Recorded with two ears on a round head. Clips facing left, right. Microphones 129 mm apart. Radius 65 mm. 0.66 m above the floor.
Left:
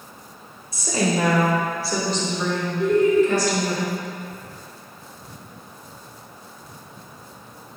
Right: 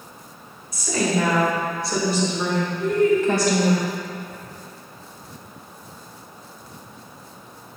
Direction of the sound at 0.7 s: 25° left (ahead or behind).